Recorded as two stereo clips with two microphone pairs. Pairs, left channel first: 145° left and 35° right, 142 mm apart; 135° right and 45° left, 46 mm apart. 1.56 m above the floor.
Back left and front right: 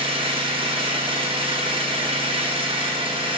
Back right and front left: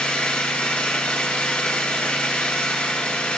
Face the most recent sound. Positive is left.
turn(degrees=-80)